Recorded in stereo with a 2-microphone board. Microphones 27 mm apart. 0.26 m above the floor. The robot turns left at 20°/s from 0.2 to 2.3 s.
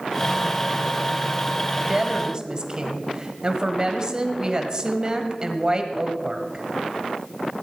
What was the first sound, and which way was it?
A woman speaking, 30° right (ahead or behind).